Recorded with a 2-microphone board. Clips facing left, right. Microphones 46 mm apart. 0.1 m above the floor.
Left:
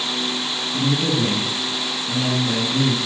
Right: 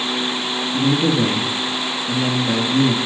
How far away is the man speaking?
About 2 m.